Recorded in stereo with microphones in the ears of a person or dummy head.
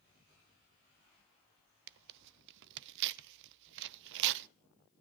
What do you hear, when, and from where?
1.9 s tearing paper: 65° right (ahead or behind), 0.5 m